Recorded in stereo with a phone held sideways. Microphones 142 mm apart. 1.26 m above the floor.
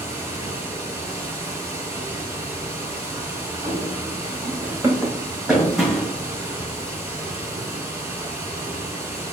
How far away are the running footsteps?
About 3 m.